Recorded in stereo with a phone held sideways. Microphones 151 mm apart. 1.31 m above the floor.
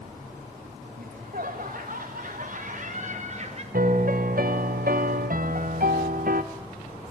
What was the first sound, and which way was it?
Laughter, 65° right (ahead or behind).